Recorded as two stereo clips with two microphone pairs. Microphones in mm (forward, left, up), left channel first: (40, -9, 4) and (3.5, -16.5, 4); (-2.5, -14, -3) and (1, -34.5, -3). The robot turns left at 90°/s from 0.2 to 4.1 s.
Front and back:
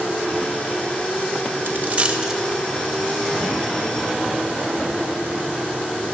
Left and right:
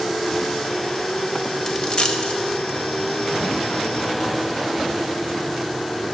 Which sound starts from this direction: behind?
A dropped coin, at 1.7 s.